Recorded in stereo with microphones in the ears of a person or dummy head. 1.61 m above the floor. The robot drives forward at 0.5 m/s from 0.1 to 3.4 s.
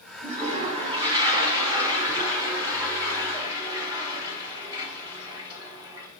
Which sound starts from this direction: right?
A toilet flushing, at 0.2 s.